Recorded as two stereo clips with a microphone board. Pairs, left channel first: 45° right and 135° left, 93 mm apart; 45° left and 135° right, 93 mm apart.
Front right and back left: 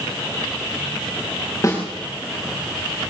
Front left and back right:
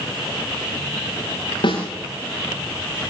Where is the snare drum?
15° left, 8 m.